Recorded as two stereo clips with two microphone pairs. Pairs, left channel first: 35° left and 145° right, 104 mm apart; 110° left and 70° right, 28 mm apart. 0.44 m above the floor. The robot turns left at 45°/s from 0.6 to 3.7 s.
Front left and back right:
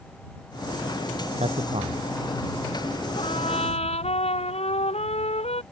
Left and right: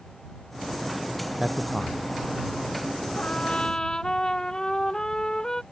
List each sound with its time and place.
1.4 s a man speaking: 145° right; by 2.0 s 175° right
3.2 s a trumpet: 70° left; by 5.6 s 45° left